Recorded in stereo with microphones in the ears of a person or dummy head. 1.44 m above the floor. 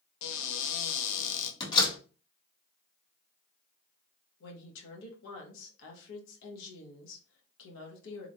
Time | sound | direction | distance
0.2 | a cupboard door | 75° left (ahead or behind) | 0.9 m
1.6 | a door slam | 25° left (ahead or behind) | 1.7 m
4.4 | a woman speaking | 75° left (ahead or behind) | 1.1 m